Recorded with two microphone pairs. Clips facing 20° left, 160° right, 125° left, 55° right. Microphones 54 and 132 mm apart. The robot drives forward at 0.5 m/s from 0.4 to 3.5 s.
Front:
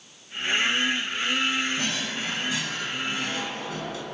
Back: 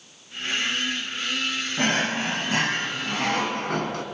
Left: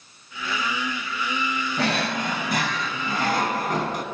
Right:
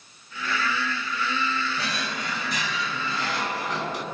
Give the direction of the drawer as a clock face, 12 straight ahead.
7 o'clock.